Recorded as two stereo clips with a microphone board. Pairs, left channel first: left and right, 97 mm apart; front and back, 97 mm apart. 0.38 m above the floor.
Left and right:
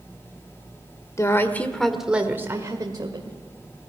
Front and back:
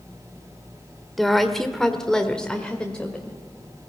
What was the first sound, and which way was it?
A woman speaking, 85° left.